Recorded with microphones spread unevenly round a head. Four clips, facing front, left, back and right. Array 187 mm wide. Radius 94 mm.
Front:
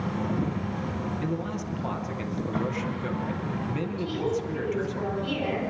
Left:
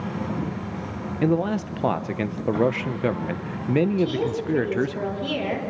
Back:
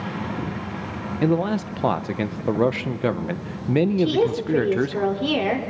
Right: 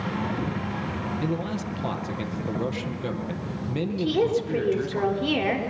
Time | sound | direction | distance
1.2 | a man speaking | 145° left | 1.0 m
4.0 | a woman speaking | 155° right | 5 m